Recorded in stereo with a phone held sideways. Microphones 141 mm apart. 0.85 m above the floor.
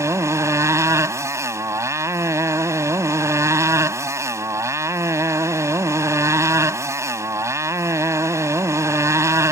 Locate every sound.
0.0 s a motorcycle: 20° right (ahead or behind)